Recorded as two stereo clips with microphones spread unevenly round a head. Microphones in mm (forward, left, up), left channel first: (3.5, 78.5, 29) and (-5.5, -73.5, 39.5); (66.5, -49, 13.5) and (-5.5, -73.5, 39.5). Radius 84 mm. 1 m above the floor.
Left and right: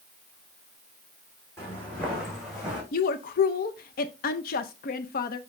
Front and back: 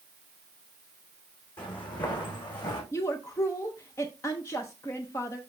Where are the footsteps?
10° left, 3.5 m; by 2.8 s 10° right, 4 m.